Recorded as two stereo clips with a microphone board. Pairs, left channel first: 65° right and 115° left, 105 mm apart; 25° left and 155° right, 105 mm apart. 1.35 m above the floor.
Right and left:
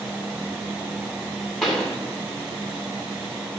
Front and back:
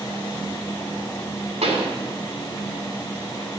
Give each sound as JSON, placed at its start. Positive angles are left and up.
{"t": 1.6, "sound": "a pop", "azimuth_deg": -155, "distance_m": 2.0}